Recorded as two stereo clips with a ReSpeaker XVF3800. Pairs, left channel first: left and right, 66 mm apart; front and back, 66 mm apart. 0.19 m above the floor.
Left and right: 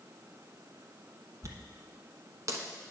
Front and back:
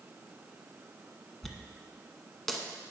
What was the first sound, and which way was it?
A dropped coin, 85° right.